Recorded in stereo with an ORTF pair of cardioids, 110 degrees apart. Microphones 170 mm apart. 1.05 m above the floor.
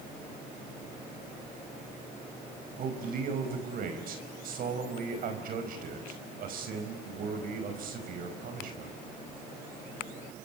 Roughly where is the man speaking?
Ahead right.